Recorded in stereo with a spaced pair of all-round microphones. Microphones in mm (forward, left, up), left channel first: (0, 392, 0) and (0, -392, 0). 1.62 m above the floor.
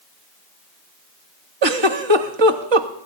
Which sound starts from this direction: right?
A giggle, at 1.6 s.